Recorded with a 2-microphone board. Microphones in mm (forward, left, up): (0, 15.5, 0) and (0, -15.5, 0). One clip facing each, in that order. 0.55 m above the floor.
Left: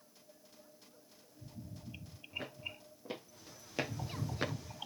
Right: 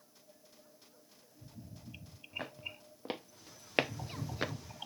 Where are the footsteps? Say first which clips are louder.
Right 2 dB; 55° right (ahead or behind), 2.5 m; by 4.5 s 5° left (ahead or behind), 0.5 m.